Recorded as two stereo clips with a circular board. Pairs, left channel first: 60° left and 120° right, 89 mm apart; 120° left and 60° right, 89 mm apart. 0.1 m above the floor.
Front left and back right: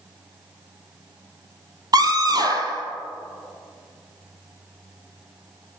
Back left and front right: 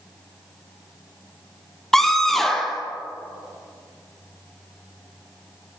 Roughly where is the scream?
Behind right.